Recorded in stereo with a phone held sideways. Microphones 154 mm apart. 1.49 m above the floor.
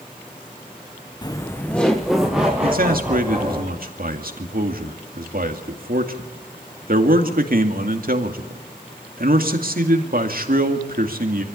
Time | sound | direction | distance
1.2 | laughter | 30° left (ahead or behind) | 1.0 m
2.6 | a man speaking | 70° right (ahead or behind) | 2 m